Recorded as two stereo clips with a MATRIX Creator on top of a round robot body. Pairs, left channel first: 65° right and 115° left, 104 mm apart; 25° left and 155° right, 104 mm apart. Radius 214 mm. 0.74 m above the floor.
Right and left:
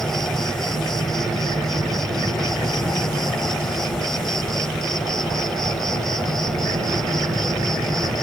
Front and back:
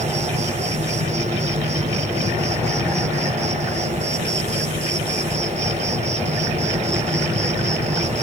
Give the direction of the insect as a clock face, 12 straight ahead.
5 o'clock.